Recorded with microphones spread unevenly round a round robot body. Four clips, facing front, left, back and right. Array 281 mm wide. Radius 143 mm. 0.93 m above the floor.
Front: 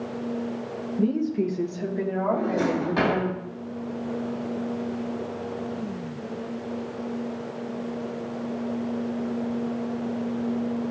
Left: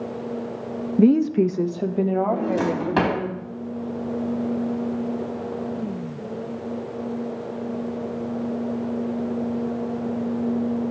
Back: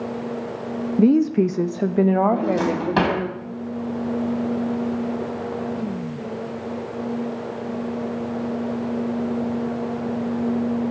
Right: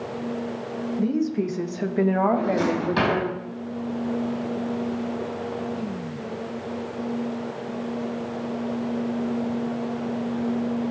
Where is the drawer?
160° left, 4 m.